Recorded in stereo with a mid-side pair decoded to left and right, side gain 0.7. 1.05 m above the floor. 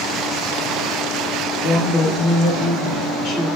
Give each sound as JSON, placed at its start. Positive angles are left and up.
{"t": 1.6, "sound": "a woman speaking", "azimuth_deg": 25, "distance_m": 1.5}